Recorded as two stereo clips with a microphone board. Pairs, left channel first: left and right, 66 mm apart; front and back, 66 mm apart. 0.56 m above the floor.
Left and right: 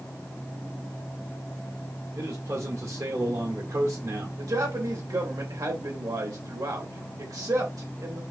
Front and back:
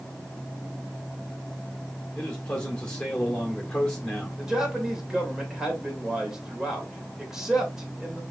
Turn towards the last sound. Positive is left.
turn(degrees=-100)